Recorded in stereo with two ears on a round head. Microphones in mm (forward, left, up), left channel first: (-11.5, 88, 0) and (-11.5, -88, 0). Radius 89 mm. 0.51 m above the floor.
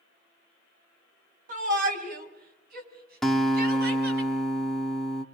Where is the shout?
45° right (ahead or behind), 4 m; by 4.2 s 60° right (ahead or behind), 5.5 m.